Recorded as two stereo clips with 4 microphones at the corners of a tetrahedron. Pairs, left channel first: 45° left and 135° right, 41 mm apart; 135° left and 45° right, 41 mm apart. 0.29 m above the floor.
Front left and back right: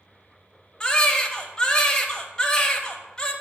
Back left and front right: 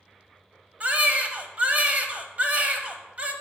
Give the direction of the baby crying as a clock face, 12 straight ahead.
1 o'clock.